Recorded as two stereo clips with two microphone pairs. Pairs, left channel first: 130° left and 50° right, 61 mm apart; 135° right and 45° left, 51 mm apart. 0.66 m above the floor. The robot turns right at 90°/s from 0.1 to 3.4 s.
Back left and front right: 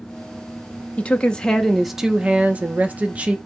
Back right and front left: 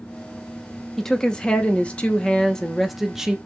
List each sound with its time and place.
1.0 s a woman speaking: 140° left, 0.6 m; by 3.4 s 5° right, 0.6 m